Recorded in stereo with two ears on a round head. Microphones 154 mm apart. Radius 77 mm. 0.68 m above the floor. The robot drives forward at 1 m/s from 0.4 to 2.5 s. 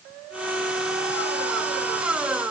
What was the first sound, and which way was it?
Only background noise.